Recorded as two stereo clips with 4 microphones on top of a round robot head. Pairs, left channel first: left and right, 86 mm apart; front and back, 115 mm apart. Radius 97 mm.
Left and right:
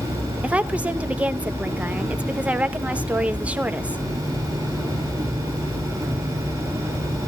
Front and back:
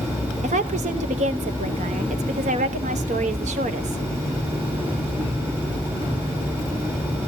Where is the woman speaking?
165° right, 1.0 m.